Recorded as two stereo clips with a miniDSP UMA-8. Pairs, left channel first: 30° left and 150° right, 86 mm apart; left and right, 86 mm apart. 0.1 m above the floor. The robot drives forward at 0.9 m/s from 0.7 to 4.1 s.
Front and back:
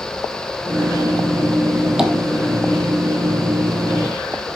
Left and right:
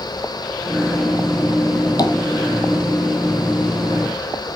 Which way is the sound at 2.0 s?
125° left.